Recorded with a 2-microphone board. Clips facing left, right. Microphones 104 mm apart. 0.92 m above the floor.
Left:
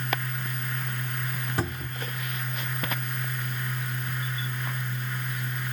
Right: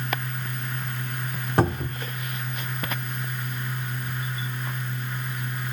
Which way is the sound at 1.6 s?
55° right (ahead or behind).